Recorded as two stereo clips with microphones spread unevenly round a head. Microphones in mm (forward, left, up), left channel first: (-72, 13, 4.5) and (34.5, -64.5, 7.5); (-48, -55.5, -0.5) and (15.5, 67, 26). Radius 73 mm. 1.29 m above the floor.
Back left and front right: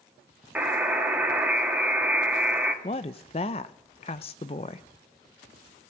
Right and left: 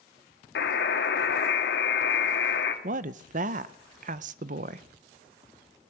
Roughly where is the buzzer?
Behind right.